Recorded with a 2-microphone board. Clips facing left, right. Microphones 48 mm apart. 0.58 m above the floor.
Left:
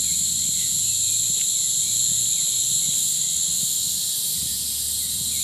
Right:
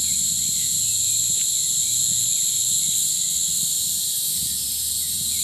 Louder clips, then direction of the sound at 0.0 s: Even; 50° left (ahead or behind).